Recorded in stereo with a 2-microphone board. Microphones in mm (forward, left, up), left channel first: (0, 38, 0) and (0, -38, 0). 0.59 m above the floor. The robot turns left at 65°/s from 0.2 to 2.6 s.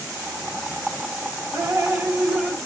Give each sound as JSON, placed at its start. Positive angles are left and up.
{"t": 1.5, "sound": "dripping", "azimuth_deg": -120, "distance_m": 1.1}